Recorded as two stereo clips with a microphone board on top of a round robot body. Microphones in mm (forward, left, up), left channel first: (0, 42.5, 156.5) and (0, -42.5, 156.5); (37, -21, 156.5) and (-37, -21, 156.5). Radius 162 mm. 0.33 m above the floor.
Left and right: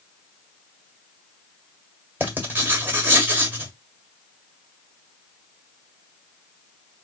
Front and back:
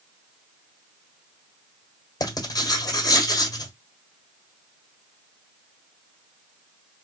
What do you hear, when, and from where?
2.2 s writing: 25° right, 1.6 m